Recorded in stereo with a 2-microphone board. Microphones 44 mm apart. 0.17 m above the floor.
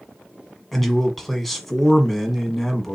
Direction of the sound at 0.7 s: 5° left (ahead or behind).